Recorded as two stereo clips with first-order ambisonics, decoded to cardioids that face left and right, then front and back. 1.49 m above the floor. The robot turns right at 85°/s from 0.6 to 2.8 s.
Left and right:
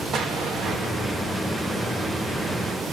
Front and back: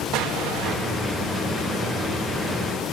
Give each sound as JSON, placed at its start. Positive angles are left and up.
{"t": 0.1, "sound": "an explosion", "azimuth_deg": -145, "distance_m": 2.0}